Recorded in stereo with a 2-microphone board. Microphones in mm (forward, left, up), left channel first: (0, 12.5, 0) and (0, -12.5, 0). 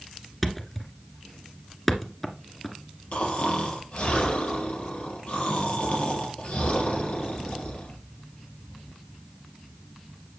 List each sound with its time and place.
0.4 s a thud: 10° left (ahead or behind), 1.5 m
3.1 s snoring: 45° left (ahead or behind), 3.5 m